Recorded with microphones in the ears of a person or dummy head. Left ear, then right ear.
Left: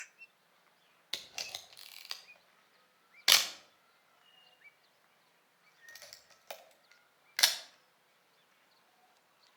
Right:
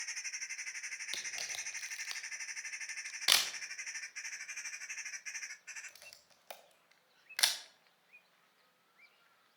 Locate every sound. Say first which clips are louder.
1.1 s a camera shutter: left 3 dB; centre (ahead or behind), 0.6 m